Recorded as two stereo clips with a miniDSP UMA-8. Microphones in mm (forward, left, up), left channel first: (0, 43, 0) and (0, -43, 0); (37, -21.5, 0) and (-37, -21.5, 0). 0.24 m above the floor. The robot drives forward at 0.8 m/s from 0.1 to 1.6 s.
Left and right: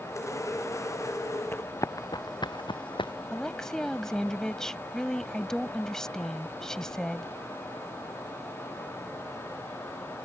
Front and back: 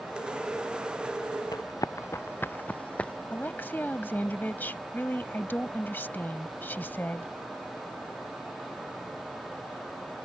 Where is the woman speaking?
15° left.